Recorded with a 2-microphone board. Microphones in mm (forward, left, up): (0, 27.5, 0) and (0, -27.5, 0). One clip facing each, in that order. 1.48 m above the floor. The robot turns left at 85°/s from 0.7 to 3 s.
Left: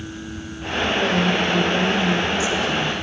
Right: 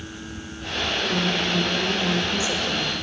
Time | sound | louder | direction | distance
1.0 | a woman speaking | left 4 dB | 75° left | 2.5 m